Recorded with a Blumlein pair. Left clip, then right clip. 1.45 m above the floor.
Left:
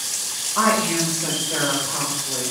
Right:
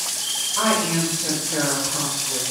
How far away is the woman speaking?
About 1.8 m.